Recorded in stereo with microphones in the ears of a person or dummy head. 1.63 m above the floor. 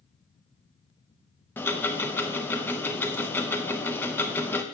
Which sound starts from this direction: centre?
Ticking, at 1.6 s.